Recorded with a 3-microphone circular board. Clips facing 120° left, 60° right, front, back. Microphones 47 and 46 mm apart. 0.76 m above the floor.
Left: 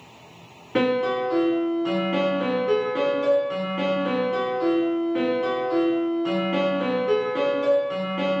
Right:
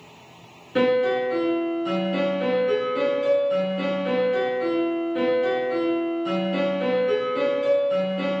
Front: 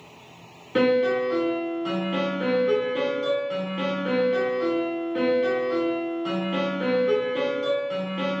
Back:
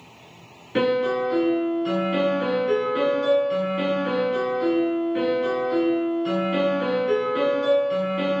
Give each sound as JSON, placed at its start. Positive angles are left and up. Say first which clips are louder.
{"t": 0.8, "sound": "a piano", "louder": "right 2 dB, front 1 dB", "azimuth_deg": 90, "distance_m": 1.9}